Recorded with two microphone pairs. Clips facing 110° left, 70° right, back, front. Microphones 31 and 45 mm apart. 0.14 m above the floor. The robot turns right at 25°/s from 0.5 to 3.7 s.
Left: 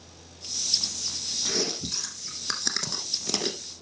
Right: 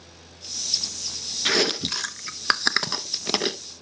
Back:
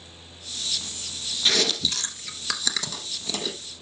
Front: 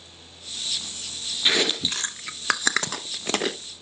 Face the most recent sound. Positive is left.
turn(degrees=-10)